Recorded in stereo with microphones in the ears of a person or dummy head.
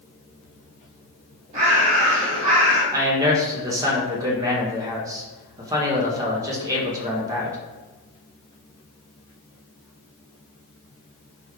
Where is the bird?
45° right (ahead or behind), 1.9 m.